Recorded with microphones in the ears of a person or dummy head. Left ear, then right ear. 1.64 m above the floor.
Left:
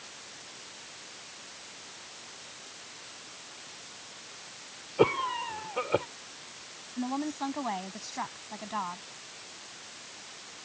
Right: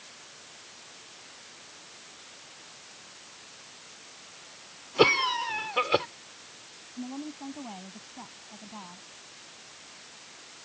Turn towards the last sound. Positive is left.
turn(degrees=60)  # may be behind; listen again after turning